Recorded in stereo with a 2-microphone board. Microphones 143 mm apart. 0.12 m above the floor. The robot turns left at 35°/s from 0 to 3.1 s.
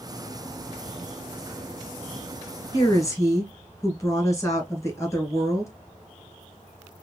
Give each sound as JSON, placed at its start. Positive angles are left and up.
{"t": 2.7, "sound": "a woman speaking", "side_deg": 25, "distance_m": 1.4}